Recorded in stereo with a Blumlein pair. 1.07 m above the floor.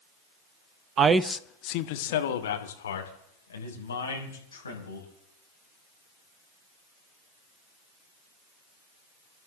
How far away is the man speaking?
About 0.8 m.